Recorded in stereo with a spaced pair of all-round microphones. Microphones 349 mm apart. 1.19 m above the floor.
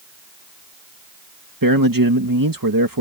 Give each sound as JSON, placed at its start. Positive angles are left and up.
{"t": 1.6, "sound": "a man speaking", "side_deg": -70}